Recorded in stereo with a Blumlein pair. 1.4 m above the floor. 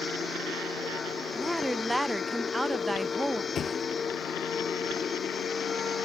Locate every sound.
0.0 s a machine running: 15° left
1.4 s a woman speaking: 5° right
3.5 s a thud: 25° left